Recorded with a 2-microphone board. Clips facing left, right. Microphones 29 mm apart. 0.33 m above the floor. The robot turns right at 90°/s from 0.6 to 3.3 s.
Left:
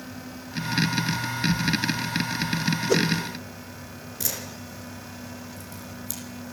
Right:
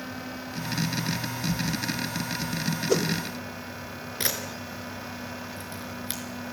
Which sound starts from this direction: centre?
A whoosh, at 2.9 s.